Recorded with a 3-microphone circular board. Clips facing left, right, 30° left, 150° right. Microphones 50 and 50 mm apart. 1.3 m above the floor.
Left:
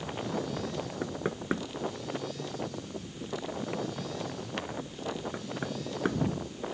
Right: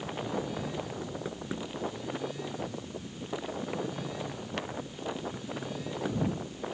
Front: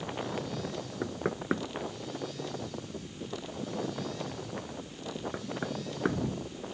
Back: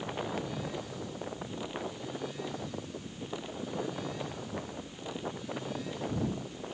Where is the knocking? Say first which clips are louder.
Left 4 dB, front 6 dB; 35° left.